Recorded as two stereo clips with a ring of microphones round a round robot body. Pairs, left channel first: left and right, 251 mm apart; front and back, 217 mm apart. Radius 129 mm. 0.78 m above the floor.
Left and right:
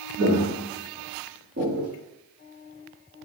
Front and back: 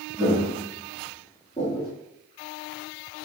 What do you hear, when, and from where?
0.2 s footsteps: 95° right, 1.6 m; by 1.9 s 70° right, 0.8 m